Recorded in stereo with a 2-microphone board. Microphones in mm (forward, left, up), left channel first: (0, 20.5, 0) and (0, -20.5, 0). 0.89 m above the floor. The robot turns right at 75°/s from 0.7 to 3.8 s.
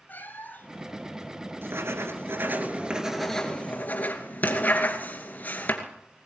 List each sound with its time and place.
0.1 s a cat meowing: 50° left (ahead or behind), 1.7 m; by 0.9 s 65° left (ahead or behind), 1.7 m
1.6 s writing: 120° right, 2.5 m; by 5.8 s 45° left, 2.5 m